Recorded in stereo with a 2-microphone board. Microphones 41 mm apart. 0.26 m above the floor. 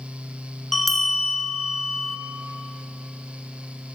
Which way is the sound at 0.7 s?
5° left (ahead or behind).